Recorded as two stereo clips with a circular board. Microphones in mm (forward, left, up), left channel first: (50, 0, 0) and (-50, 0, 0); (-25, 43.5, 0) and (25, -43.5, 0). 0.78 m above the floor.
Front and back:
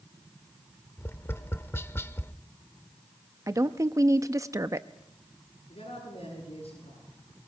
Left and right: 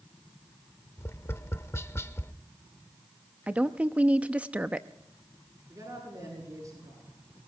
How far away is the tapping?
About 0.6 m.